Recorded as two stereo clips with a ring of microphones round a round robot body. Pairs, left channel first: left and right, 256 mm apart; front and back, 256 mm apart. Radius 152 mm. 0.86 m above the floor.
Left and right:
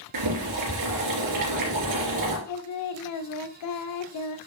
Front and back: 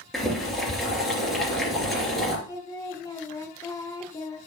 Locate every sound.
0.1 s boiling: 90° right, 3 m
2.5 s singing: 80° left, 0.8 m